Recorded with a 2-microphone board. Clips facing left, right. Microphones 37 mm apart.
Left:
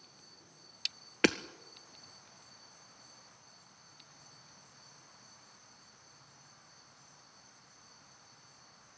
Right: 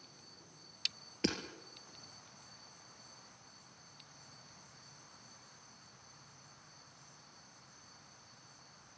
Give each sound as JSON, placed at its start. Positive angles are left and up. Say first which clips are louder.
{"t": 1.2, "sound": "hammering", "louder": "left 8 dB", "side_deg": 60, "distance_m": 1.2}